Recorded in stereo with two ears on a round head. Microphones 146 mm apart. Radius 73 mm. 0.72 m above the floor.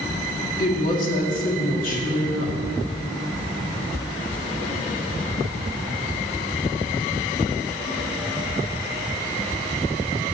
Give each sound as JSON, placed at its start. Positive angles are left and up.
{"t": 0.6, "sound": "a woman speaking", "side_deg": 55, "distance_m": 1.5}